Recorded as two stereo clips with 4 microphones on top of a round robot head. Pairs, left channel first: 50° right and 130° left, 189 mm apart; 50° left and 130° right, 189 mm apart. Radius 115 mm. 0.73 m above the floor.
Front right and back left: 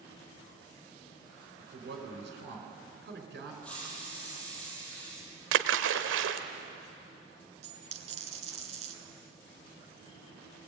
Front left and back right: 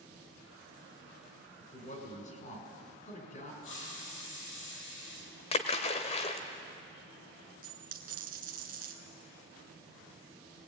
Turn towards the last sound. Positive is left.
turn(degrees=-175)